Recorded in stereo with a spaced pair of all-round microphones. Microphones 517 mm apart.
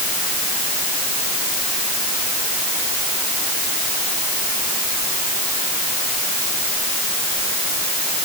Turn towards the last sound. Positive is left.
No sound to turn to.